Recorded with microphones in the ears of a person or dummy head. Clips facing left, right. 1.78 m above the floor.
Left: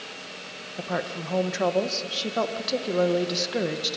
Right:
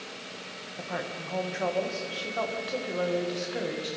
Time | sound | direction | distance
0.8 | a woman speaking | 65° left (ahead or behind) | 1.5 m